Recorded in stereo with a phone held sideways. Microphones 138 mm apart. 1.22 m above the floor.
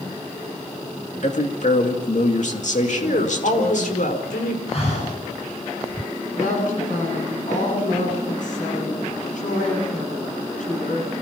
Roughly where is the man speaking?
Left.